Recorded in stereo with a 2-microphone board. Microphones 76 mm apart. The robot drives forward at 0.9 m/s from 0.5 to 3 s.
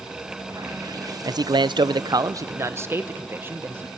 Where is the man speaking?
55° right (ahead or behind), 0.8 m; by 3.9 s 30° right (ahead or behind), 1.3 m.